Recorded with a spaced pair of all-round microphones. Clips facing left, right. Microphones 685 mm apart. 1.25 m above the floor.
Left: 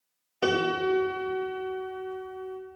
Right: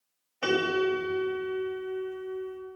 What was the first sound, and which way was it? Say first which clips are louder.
A piano: even; 60° left (ahead or behind).